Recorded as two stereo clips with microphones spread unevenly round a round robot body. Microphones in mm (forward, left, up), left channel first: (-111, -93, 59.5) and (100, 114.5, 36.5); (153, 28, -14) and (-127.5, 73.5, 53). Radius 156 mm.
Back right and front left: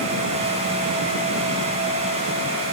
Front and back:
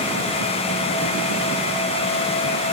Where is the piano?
I don't hear a piano.